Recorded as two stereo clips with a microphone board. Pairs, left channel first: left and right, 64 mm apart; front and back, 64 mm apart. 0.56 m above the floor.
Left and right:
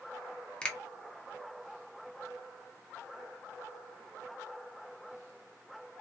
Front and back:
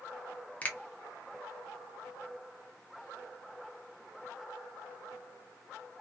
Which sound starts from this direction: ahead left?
A finger snap, at 0.6 s.